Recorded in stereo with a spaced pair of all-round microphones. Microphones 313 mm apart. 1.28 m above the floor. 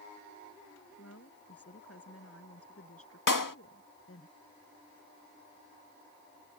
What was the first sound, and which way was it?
A woman speaking, 50° left (ahead or behind).